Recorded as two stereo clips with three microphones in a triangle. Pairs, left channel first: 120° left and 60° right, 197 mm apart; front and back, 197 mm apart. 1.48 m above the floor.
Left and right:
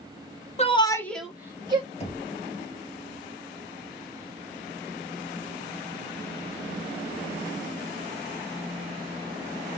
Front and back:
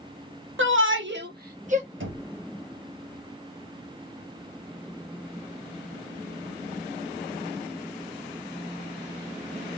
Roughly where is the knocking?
Behind.